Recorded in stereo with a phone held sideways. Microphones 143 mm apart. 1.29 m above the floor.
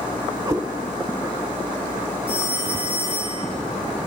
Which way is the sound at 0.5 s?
25° right (ahead or behind).